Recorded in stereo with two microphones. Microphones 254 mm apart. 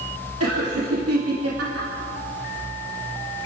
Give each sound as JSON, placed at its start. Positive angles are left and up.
{"t": 0.4, "sound": "laughter", "side_deg": -70, "distance_m": 2.5}